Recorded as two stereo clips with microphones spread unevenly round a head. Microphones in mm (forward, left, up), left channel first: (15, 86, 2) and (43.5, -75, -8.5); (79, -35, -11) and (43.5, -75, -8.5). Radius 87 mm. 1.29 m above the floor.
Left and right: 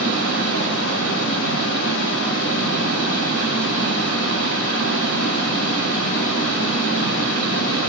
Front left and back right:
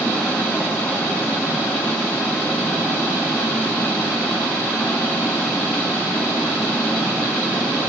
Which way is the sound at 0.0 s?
125° left.